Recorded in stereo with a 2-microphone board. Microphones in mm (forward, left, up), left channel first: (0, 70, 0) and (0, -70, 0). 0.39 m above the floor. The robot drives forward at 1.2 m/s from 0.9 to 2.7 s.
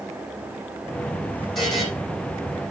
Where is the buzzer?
Centre (ahead or behind), 5.5 m.